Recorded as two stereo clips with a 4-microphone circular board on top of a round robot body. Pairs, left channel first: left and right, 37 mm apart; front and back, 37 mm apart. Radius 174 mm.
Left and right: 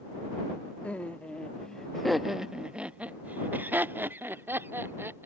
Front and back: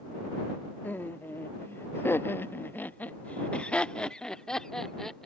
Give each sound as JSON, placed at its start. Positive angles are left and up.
{"t": 0.8, "sound": "laughter", "azimuth_deg": 35}